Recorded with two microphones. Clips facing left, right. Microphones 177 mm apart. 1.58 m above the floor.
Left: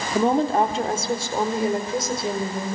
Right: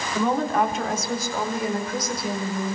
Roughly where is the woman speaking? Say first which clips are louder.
Left 3 dB; left.